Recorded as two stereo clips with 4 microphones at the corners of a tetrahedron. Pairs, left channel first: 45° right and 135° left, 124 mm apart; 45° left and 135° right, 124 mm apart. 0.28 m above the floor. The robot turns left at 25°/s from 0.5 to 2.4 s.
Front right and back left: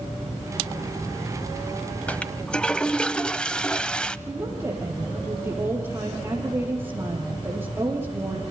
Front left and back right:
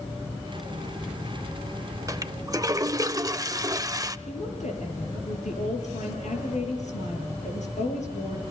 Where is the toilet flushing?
110° right, 0.8 m; by 4.2 s 120° right, 0.8 m.